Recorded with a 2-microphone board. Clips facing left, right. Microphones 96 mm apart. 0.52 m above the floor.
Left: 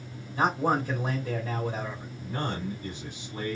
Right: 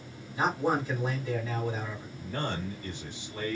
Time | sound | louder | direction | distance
0.3 | a man speaking | left 2 dB | 50° left (ahead or behind) | 2.0 m
2.2 | a man speaking | left 1 dB | 15° left (ahead or behind) | 1.9 m